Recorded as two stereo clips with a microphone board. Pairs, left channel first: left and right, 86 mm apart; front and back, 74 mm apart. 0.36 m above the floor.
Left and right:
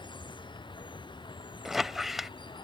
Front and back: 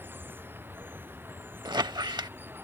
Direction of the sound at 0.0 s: 120° left.